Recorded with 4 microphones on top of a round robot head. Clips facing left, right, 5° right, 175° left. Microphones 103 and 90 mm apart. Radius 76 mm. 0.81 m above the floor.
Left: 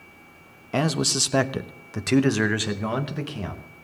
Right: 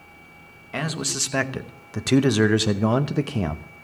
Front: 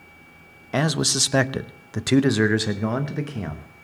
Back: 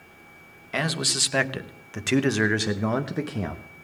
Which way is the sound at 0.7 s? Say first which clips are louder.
Left 5 dB, front 5 dB; 45° left.